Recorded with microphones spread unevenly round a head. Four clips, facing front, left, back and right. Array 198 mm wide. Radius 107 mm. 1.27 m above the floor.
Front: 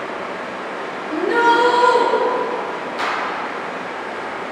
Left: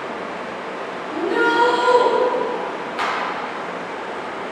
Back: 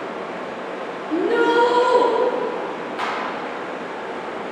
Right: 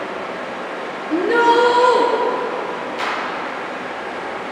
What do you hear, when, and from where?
0.0 s running water: 100° right, 1.0 m
1.1 s a shout: 110° right, 0.7 m
3.0 s a clap: 65° left, 1.5 m